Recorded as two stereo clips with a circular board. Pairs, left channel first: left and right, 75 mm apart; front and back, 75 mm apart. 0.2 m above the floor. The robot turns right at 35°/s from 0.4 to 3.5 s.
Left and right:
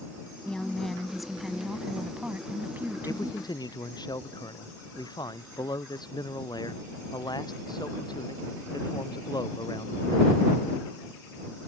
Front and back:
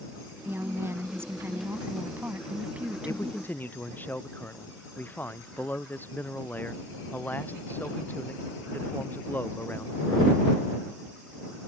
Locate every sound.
0.5 s a woman speaking: 155° left; by 3.4 s 100° right
3.0 s a man speaking: 50° left; by 10.4 s 65° left